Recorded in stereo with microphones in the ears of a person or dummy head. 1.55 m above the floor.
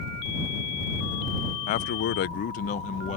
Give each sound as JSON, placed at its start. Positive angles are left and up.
{"t": 1.7, "sound": "a man speaking", "side_deg": 40}